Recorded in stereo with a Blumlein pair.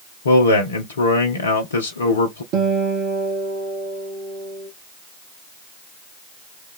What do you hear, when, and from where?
0.2 s a man speaking: 70° left, 0.6 m
2.5 s a guitar: 40° right, 1.0 m